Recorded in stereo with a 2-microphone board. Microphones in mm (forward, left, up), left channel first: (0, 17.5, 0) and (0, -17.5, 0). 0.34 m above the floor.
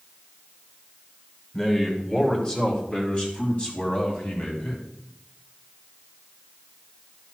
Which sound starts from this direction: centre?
A man speaking, at 1.5 s.